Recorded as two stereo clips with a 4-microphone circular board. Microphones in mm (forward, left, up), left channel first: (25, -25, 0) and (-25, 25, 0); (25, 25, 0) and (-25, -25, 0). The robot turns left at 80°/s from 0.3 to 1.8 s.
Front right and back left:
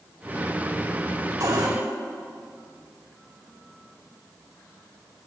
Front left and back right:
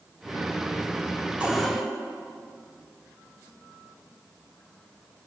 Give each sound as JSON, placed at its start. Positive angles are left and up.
{"t": 1.4, "sound": "a cupboard door", "azimuth_deg": 155, "distance_m": 4.0}